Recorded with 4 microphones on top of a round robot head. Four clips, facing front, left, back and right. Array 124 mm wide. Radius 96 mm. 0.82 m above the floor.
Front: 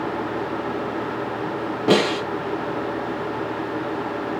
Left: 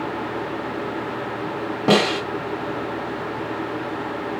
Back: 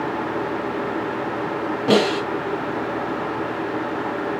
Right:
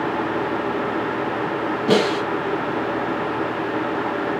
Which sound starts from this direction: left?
A snare drum, at 1.9 s.